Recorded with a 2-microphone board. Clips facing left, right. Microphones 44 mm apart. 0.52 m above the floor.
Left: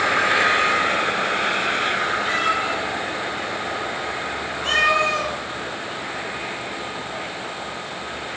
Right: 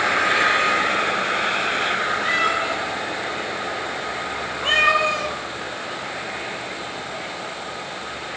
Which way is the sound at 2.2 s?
80° right.